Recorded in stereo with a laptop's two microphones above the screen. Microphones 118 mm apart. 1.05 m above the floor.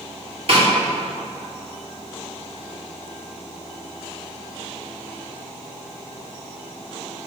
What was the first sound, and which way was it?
A snare drum, 55° right (ahead or behind).